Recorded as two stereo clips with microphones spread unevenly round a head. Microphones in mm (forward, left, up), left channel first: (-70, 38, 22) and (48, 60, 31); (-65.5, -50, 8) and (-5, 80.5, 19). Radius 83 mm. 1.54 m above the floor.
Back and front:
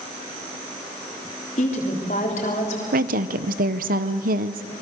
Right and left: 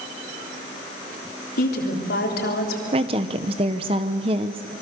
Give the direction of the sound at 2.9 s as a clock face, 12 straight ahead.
12 o'clock.